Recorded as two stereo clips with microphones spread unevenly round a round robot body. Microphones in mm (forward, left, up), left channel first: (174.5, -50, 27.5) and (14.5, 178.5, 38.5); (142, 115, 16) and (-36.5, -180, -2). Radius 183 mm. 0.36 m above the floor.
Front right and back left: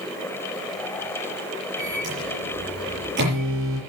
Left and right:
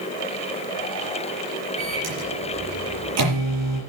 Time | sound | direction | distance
1.8 | a microwave | 175° right | 7.5 m